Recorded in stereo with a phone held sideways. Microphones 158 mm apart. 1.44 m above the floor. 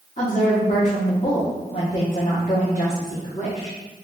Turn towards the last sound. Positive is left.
turn(degrees=50)  # may be behind; listen again after turning